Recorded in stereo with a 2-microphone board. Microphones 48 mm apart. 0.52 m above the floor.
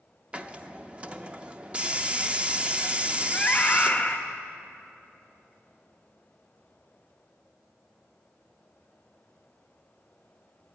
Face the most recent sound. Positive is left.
turn(degrees=25)  # may be behind; listen again after turning